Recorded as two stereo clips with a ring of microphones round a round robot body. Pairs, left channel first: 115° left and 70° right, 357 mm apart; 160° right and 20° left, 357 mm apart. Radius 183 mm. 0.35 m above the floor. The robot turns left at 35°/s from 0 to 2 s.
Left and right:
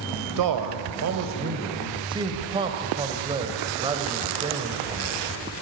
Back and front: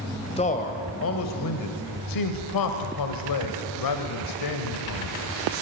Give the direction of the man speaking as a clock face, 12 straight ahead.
3 o'clock.